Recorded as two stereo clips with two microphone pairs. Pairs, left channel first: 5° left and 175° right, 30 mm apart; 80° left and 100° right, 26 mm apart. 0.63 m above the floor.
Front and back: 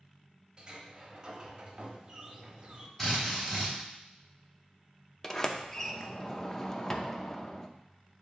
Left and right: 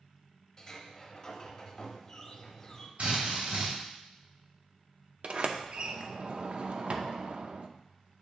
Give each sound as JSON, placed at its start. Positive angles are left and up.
{"t": 0.6, "sound": "a sliding door", "azimuth_deg": 135, "distance_m": 1.0}
{"t": 3.0, "sound": "a drill", "azimuth_deg": -75, "distance_m": 3.5}
{"t": 5.2, "sound": "a sliding door", "azimuth_deg": -65, "distance_m": 0.5}